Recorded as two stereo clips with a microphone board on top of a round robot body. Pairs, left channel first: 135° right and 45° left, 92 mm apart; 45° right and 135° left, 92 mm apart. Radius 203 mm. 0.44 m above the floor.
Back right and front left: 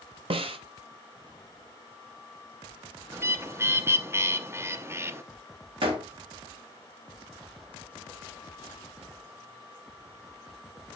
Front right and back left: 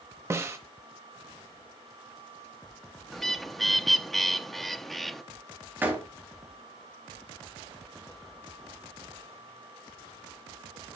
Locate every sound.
0.3 s a snare drum: 70° left, 0.8 m
3.1 s a bird: 40° left, 0.9 m
5.8 s a door slam: 65° left, 3 m